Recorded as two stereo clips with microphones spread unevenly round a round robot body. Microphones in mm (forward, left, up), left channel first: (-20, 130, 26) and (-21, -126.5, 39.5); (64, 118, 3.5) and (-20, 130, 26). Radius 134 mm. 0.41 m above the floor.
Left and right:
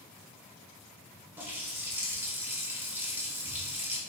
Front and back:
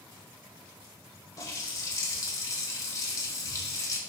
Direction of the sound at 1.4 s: 10° right.